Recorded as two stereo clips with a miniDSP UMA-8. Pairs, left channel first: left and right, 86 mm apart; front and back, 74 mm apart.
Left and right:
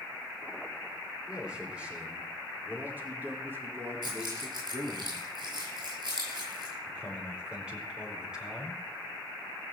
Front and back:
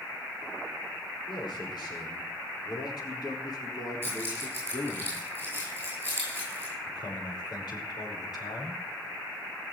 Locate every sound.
1.3 s a man speaking: 10° right, 5 m; by 5.0 s 45° right, 3.5 m
4.0 s keys jangling: 115° right, 9.5 m
6.9 s a man speaking: 10° right, 4.5 m